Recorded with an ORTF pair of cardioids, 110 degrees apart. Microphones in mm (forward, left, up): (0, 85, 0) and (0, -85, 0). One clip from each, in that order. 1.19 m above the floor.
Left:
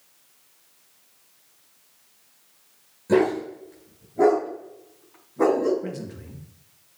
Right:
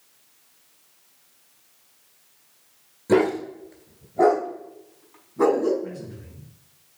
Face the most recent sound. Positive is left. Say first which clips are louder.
# left 1 dB
turn(degrees=60)